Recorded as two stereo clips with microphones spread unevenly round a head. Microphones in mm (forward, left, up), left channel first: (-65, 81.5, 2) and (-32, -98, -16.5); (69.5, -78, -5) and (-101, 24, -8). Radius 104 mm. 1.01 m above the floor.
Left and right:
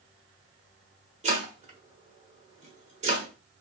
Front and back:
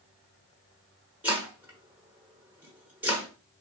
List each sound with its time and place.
1.2 s chopping: 130° right, 1.2 m